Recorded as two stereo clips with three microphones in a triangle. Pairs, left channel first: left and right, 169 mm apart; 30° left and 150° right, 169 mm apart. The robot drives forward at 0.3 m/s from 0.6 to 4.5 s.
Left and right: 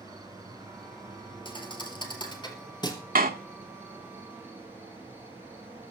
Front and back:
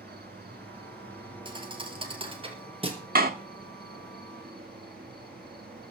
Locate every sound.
0.0 s an insect: 160° right, 3 m; by 5.9 s 165° right, 4 m
1.4 s a thud: 150° left, 3 m; by 3.0 s 155° left, 3 m
3.1 s a door slam: 120° right, 1.6 m; by 3.3 s 125° right, 1.7 m